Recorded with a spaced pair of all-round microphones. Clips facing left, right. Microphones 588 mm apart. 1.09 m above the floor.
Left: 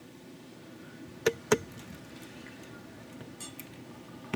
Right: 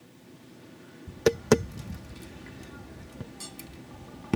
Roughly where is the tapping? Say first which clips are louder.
Right 5 dB; right.